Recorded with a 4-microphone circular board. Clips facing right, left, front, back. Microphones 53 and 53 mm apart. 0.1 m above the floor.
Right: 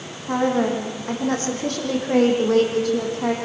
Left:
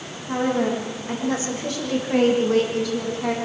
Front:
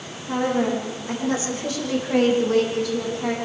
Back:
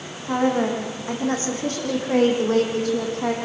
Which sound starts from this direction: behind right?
A woman speaking, at 0.3 s.